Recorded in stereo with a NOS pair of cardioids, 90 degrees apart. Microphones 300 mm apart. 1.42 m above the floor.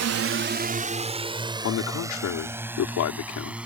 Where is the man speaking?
65° left.